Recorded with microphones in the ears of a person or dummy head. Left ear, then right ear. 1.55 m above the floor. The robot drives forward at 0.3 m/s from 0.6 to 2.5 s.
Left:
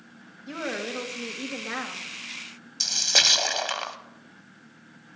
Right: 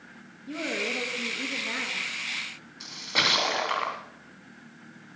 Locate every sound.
0.5 s a woman speaking: 60° left (ahead or behind), 2.0 m; by 2.0 s 50° left (ahead or behind), 2 m
2.8 s a splash: 80° left, 1.1 m